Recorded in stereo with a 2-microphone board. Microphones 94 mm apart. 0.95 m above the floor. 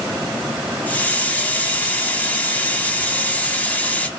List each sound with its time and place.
0.9 s a hiss: 15° left (ahead or behind), 1.5 m